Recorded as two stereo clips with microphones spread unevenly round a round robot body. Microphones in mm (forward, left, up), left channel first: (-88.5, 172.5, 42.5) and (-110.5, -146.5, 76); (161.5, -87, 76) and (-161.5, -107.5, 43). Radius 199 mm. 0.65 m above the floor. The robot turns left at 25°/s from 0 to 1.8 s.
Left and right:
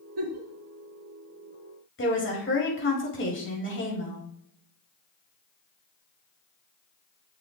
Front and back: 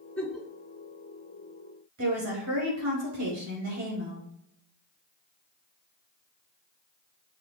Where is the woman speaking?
135° left, 4.5 m.